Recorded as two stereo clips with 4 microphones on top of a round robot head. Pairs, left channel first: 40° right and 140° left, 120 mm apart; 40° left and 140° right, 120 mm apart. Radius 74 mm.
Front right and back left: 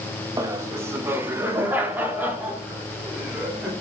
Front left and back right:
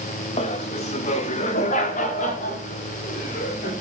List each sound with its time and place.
0.4 s laughter: 75° left, 2.5 m; by 3.7 s 60° left, 6.5 m